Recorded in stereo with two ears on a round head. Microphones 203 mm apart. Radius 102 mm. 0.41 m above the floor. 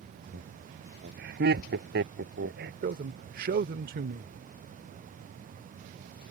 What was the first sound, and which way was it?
Laughter, 45° right (ahead or behind).